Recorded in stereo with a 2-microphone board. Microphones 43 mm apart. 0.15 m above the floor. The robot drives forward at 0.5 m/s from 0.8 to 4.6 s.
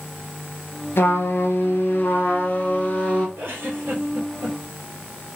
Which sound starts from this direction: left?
A trumpet, at 1.0 s.